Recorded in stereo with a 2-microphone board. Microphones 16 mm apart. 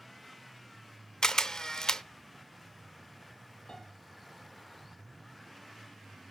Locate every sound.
1.2 s a camera shutter: 45° left (ahead or behind), 0.6 m
3.7 s a piano: 75° left (ahead or behind), 7 m